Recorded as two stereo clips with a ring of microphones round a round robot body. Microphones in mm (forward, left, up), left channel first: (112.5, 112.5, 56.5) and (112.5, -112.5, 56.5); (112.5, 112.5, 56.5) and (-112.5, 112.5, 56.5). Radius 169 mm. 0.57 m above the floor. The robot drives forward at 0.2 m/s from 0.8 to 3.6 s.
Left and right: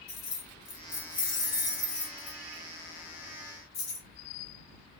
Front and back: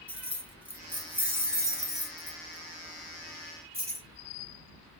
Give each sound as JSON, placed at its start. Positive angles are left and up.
{"t": 0.1, "sound": "keys jangling", "azimuth_deg": 95, "distance_m": 1.7}